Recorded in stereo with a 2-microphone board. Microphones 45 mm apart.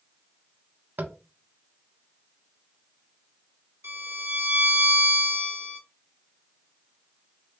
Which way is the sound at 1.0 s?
45° right (ahead or behind).